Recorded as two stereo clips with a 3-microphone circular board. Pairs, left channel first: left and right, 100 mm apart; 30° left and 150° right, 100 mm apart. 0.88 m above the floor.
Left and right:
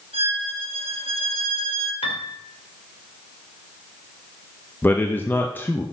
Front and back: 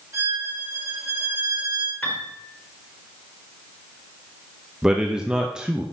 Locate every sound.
0.1 s a violin: 90° right, 2 m
2.0 s a piano: 100° left, 1.8 m
4.8 s a man speaking: 135° left, 0.7 m